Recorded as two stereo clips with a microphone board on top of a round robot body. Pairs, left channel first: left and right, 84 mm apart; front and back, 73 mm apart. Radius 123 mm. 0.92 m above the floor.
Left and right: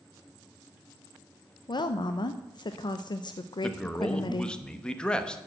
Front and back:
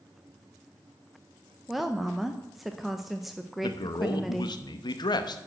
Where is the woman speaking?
95° left, 0.7 m.